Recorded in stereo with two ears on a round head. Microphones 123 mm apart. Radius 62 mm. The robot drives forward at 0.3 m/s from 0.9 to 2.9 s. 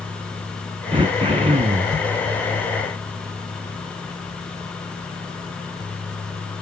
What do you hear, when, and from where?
0.9 s throat clearing: 35° right (ahead or behind), 0.9 m; by 1.9 s 45° right (ahead or behind), 0.8 m